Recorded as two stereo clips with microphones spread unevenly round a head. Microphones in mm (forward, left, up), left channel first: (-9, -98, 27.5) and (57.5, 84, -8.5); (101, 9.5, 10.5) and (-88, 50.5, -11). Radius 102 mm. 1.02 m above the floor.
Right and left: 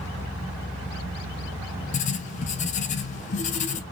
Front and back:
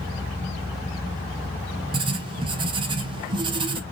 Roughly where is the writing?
Behind right.